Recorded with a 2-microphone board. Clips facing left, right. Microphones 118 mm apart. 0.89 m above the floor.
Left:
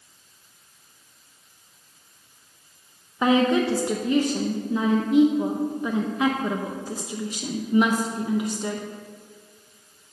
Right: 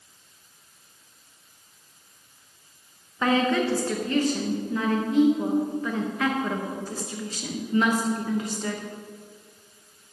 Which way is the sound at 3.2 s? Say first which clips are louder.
Left 3 dB; 15° left (ahead or behind).